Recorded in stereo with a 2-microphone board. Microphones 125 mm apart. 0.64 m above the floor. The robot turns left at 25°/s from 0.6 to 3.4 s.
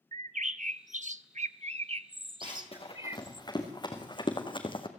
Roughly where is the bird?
Right.